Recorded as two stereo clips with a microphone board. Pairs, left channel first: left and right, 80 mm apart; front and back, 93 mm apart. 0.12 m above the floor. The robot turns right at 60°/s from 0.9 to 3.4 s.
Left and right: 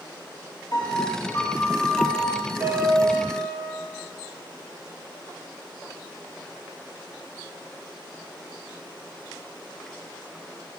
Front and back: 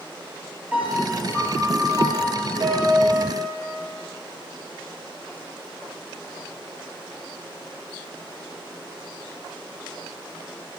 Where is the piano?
105° left, 2.5 m; by 3.6 s 105° right, 2.5 m.